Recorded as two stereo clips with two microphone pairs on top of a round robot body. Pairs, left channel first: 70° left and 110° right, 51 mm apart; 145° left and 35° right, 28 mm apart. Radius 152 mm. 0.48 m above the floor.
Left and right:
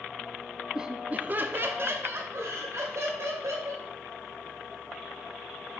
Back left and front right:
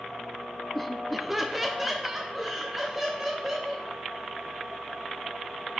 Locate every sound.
0.8 s laughter: 130° right, 0.7 m; by 3.9 s 115° right, 2.5 m